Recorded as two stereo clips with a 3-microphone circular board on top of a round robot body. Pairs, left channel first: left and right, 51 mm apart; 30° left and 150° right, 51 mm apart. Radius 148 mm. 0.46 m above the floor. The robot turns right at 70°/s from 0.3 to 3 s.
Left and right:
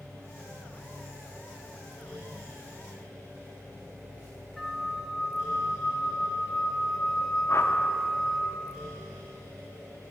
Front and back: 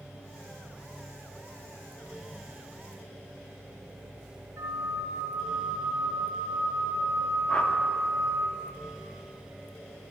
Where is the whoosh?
105° left, 0.7 m.